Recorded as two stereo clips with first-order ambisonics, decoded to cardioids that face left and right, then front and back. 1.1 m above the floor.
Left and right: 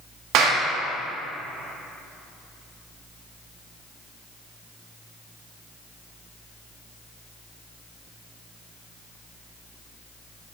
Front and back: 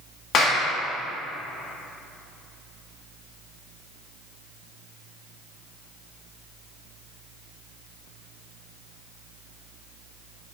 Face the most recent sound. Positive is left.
turn(degrees=-60)